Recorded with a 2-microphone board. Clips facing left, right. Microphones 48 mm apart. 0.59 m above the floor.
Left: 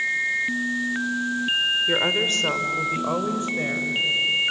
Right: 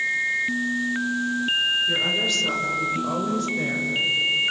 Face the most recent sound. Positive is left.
turn(degrees=15)  # may be behind; listen again after turning